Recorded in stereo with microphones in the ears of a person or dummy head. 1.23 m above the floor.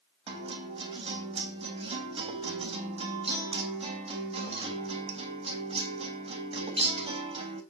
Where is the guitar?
30° right (ahead or behind), 3.5 m.